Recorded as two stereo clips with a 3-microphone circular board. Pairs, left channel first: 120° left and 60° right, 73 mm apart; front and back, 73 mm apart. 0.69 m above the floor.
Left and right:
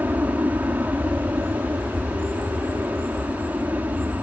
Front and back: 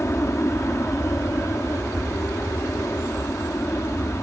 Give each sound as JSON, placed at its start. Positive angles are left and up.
{"t": 0.0, "sound": "an aircraft", "azimuth_deg": -25}